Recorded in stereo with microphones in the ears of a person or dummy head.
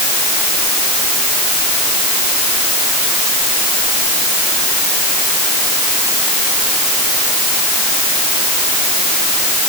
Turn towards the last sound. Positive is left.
No sound to turn to.